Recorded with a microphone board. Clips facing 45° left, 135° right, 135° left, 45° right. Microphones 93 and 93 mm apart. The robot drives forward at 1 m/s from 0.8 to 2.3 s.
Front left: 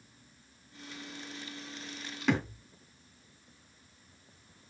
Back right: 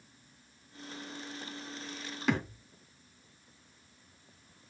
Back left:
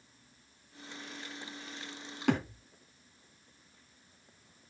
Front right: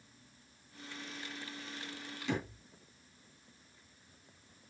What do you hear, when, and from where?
2.3 s a thud: 140° left, 3 m